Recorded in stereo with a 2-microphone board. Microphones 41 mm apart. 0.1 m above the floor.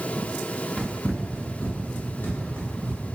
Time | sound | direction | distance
0.8 | running footsteps | 25° left (ahead or behind) | 0.6 m